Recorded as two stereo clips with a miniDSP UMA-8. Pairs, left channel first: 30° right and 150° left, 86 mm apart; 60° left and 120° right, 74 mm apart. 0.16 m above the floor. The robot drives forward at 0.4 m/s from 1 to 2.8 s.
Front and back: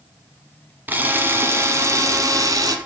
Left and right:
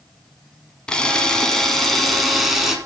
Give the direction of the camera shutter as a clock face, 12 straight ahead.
8 o'clock.